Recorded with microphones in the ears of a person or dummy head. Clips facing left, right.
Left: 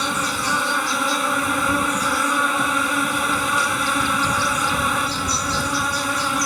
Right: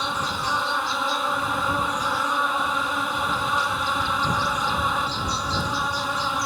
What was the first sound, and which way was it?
An insect, 35° left (ahead or behind).